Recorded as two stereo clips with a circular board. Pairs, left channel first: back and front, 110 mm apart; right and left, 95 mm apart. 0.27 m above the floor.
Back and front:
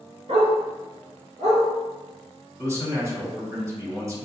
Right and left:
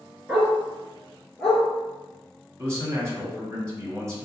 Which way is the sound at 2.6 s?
50° left.